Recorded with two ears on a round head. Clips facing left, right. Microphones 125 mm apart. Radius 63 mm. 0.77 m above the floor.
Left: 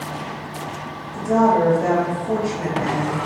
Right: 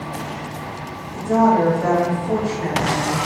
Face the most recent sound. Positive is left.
turn(degrees=20)  # may be behind; listen again after turning